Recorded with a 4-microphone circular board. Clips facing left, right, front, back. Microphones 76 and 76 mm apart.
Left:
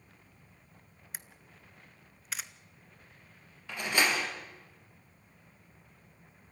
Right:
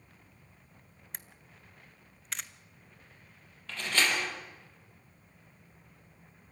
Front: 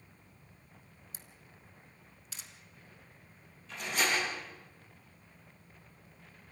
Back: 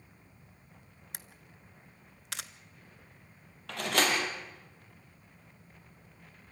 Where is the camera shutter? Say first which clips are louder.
Left 1 dB, back 7 dB; 175° left, 1.0 m.